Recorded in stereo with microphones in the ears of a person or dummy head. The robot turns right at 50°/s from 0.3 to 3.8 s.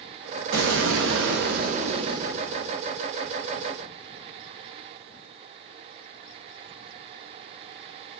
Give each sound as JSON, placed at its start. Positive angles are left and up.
{"t": 0.5, "sound": "an explosion", "azimuth_deg": -110, "distance_m": 0.6}